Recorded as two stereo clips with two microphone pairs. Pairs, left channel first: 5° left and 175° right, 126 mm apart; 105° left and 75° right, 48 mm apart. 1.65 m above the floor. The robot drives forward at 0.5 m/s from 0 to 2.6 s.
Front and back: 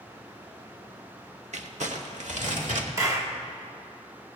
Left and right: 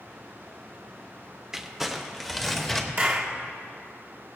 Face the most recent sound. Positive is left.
turn(degrees=-120)